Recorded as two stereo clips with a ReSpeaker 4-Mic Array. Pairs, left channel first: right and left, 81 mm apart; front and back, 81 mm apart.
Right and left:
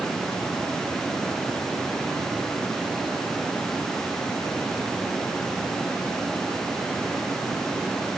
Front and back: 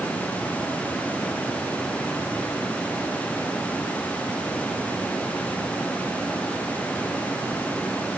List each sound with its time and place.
Only background noise.